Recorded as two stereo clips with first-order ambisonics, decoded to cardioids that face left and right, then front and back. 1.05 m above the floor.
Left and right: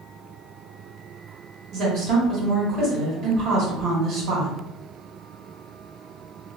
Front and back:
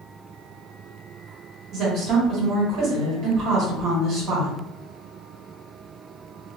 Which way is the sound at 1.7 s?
130° right.